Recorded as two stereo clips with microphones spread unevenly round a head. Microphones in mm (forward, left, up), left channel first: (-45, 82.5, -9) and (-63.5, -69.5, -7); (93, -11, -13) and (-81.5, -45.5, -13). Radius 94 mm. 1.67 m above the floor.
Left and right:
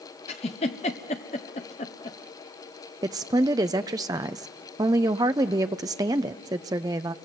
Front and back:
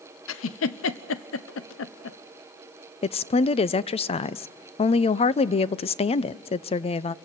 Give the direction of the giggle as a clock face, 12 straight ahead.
11 o'clock.